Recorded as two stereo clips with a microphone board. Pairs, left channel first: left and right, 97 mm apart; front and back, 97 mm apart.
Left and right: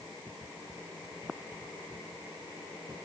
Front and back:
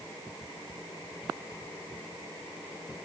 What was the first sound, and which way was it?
Only background noise.